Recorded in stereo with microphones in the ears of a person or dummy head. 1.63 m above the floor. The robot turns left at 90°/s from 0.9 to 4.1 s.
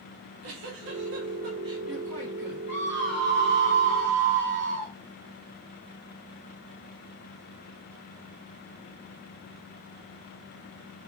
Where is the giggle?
90° right, 1.5 m; by 2.6 s 120° left, 1.5 m.